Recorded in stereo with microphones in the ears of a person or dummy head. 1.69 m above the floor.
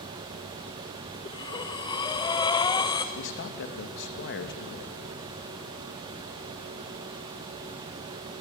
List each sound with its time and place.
1.2 s breathing: 20° left (ahead or behind), 1.3 m
3.1 s a man speaking: 55° left (ahead or behind), 2.5 m